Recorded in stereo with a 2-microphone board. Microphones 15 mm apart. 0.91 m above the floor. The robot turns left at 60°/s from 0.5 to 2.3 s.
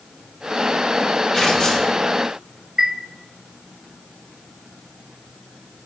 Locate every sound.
1.3 s tearing paper: 150° left, 2 m; by 1.9 s 115° left, 2 m
2.8 s a chime: 50° right (ahead or behind), 1.7 m